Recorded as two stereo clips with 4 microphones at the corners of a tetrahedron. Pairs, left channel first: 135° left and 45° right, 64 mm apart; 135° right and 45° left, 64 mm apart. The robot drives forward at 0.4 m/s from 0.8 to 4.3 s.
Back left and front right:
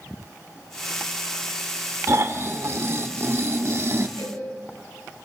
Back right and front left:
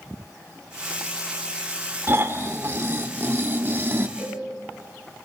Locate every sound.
2.1 s snoring: 5° right, 2 m
4.2 s a cowbell: 125° left, 6.5 m